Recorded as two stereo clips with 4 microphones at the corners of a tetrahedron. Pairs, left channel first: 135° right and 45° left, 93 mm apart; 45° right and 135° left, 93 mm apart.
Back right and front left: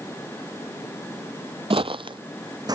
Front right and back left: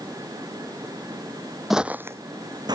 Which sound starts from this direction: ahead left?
Footsteps, at 1.7 s.